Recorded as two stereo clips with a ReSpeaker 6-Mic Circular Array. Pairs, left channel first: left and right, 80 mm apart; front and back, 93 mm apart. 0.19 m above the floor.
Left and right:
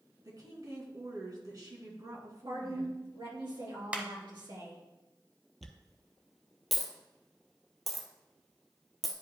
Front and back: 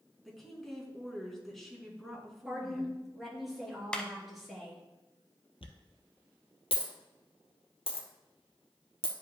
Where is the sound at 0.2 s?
85° right, 2.0 m.